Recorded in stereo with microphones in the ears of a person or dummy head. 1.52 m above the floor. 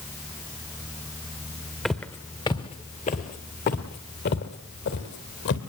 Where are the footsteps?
5° left (ahead or behind), 1.6 m; by 5.6 s 65° left (ahead or behind), 4 m.